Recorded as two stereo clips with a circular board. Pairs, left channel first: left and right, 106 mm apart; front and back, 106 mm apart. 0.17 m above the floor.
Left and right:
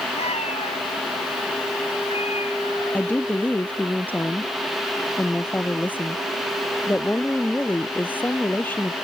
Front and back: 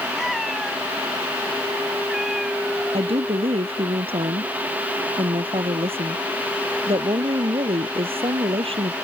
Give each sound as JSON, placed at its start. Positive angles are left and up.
{"t": 0.2, "sound": "a cat meowing", "azimuth_deg": 90}
{"t": 2.9, "sound": "a woman speaking", "azimuth_deg": 160}